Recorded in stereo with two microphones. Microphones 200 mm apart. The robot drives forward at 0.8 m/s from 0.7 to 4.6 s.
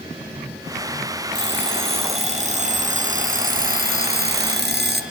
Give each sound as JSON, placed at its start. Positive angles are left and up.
{"t": 1.3, "sound": "an alarm clock", "side_deg": -25, "distance_m": 4.0}